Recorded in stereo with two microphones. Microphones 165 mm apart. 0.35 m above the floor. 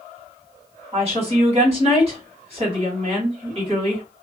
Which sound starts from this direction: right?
A woman speaking, at 0.9 s.